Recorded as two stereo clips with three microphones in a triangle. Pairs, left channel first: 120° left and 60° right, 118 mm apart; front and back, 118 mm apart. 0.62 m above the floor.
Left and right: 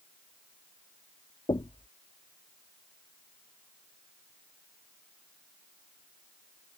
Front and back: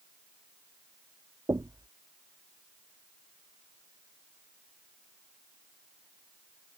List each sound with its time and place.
1.5 s knocking: 135° left